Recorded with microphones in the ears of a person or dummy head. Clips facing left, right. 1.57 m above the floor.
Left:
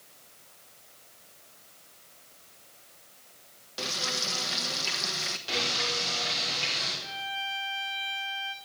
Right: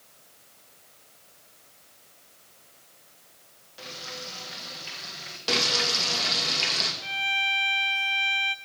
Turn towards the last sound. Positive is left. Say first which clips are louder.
# right 4 dB
turn(degrees=-35)  # may be behind; listen again after turning